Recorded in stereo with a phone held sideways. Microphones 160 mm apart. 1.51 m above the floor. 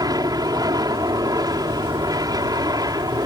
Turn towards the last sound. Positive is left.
turn(degrees=-25)  # may be behind; listen again after turning